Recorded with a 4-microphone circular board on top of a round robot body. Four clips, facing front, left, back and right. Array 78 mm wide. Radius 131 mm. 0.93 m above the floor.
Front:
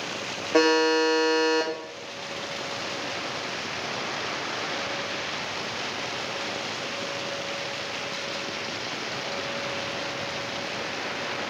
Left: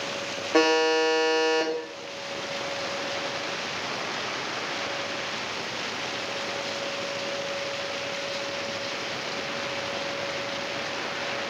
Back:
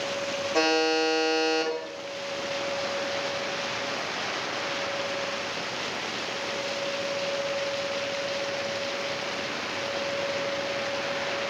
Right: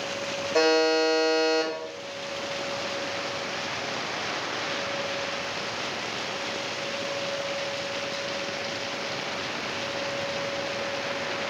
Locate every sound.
0.5 s a buzzer: 50° left, 1.5 m